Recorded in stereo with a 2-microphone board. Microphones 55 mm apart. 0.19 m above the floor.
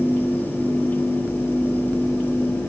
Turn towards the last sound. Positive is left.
No sound to turn to.